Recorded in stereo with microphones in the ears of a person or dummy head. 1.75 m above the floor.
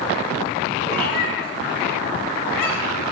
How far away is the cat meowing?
About 2 m.